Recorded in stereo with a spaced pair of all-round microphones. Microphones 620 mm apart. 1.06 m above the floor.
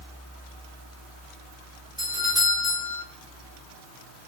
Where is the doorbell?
5° right (ahead or behind), 3.5 m.